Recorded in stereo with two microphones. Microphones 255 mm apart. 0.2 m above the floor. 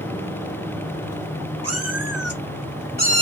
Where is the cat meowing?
75° right (ahead or behind), 2.5 m; by 3.2 s 20° right (ahead or behind), 0.8 m.